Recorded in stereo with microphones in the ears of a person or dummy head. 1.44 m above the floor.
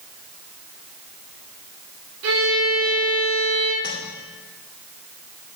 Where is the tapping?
45° right (ahead or behind), 2.5 m.